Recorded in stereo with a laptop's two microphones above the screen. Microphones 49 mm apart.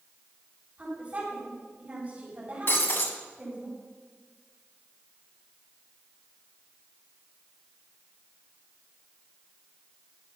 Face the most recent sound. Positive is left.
turn(degrees=50)  # may be behind; listen again after turning